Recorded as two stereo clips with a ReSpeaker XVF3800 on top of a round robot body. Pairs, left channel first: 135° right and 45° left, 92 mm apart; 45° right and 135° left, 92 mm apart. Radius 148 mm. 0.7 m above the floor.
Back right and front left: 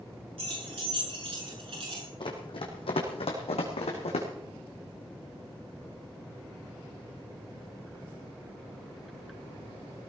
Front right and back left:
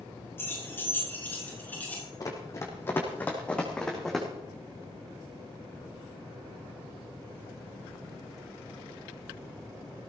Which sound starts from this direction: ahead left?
Keys jangling, at 0.4 s.